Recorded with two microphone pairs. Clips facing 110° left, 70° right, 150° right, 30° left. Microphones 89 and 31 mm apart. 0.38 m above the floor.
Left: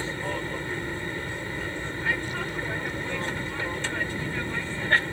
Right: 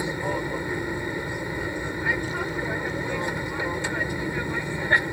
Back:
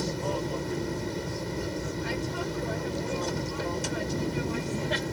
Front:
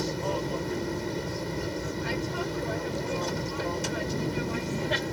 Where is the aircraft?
35° right.